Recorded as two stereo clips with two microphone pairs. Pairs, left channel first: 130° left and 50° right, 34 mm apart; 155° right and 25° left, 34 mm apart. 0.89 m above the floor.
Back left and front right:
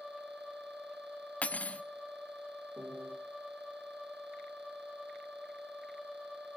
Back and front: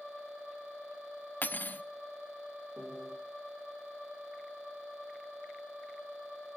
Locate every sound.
1.4 s cutlery clinking: 175° left, 0.9 m
2.8 s a piano: 60° right, 3.5 m